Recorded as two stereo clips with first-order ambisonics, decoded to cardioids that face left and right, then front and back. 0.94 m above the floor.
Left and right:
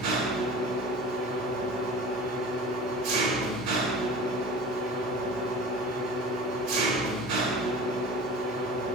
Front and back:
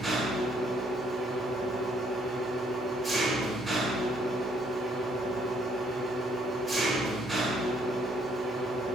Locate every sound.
0.0 s an engine running: 100° right, 1.4 m